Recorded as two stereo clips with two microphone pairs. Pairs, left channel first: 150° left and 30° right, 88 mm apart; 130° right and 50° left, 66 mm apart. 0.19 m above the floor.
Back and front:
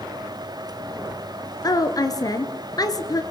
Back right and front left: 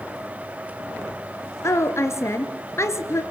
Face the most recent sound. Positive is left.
turn(degrees=-170)